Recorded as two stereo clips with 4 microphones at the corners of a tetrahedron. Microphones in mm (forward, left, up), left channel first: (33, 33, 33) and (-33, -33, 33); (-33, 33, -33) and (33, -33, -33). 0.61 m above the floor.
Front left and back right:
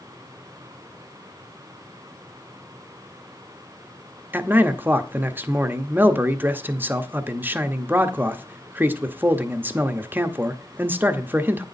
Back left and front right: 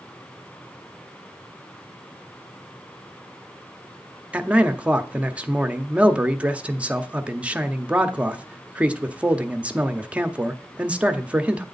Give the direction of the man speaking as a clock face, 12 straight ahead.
3 o'clock.